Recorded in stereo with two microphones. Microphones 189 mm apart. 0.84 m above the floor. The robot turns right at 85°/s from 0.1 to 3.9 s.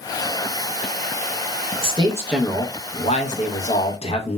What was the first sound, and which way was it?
A man speaking, 50° right.